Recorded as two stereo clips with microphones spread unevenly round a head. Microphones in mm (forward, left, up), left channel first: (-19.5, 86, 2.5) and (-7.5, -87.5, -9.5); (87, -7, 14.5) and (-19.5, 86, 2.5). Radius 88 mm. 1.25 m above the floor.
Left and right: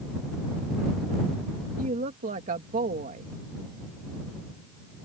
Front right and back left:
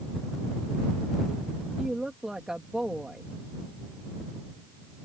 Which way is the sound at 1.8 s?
130° right.